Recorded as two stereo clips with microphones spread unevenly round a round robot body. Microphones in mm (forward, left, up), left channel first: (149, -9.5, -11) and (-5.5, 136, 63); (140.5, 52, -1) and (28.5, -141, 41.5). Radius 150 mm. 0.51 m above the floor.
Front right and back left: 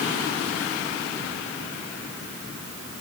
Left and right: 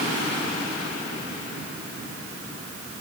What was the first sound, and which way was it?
Only background noise.